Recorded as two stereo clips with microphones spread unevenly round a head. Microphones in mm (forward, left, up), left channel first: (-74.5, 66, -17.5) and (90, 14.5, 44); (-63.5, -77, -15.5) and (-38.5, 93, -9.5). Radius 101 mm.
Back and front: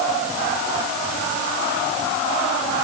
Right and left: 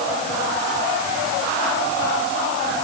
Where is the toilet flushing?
No toilet flushing in this recording.